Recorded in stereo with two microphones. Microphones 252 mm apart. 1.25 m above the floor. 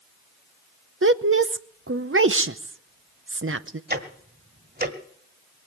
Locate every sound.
1.0 s a woman speaking: 55° right (ahead or behind), 0.7 m
3.9 s ticking: 40° right (ahead or behind), 1.4 m